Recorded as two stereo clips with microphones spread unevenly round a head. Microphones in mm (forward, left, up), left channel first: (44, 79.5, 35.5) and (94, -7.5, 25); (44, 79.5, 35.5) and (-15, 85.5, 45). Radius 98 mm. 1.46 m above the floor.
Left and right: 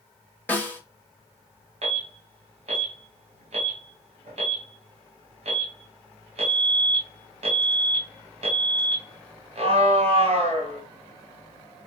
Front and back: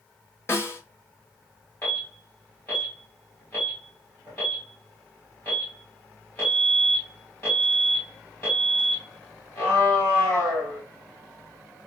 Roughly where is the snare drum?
Ahead left.